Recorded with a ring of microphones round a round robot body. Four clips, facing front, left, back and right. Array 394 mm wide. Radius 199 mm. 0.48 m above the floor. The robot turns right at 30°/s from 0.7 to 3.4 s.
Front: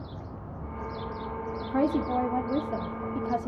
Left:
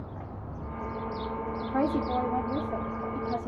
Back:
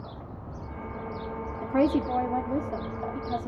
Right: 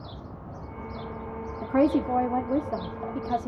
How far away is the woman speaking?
About 1.2 m.